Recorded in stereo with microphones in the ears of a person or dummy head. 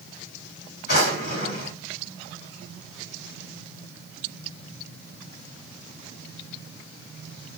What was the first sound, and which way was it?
A drawer, 60° left (ahead or behind).